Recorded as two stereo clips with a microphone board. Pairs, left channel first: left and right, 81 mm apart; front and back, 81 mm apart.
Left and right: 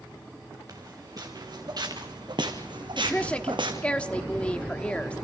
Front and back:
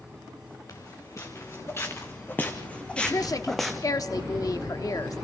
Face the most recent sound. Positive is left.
turn(degrees=20)